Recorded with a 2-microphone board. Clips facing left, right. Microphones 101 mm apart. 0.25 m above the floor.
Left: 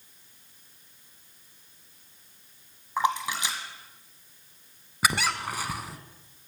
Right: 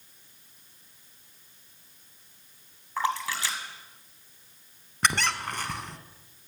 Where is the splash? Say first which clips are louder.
Left 2 dB; 20° left (ahead or behind), 1.5 m.